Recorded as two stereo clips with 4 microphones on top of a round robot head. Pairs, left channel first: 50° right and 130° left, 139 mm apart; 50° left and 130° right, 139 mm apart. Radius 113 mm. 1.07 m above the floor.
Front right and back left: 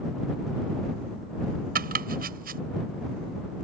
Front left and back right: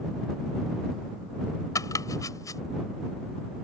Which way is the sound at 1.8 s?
115° left.